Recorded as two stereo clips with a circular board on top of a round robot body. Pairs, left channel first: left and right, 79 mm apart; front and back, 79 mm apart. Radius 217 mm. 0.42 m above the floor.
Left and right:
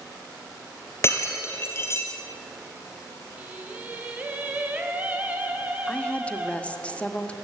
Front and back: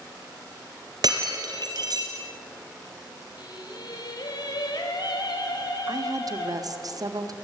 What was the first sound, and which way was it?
Breaking glass, 145° left.